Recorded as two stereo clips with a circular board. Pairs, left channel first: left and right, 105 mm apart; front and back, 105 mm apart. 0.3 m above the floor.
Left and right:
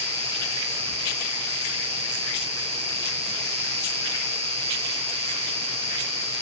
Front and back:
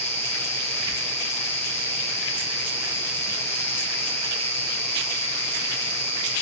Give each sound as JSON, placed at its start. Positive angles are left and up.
{"t": 0.0, "sound": "an insect", "azimuth_deg": -65, "distance_m": 6.5}